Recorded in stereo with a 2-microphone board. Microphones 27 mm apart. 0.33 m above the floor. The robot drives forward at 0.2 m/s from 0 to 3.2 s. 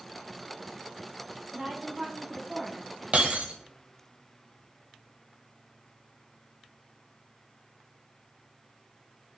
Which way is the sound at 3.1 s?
60° right (ahead or behind).